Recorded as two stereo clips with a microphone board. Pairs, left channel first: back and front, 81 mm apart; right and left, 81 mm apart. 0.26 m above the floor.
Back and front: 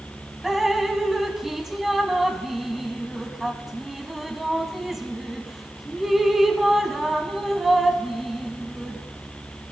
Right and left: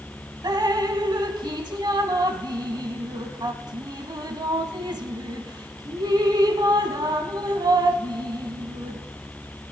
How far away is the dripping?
About 0.8 m.